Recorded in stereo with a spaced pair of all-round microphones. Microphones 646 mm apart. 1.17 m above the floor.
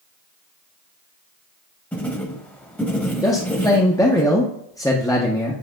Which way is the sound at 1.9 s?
5° left (ahead or behind).